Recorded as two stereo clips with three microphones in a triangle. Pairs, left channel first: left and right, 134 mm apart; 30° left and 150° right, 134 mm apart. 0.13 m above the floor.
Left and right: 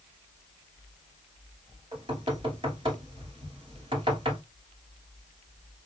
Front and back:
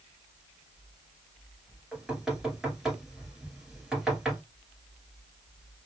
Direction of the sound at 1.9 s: 65° right.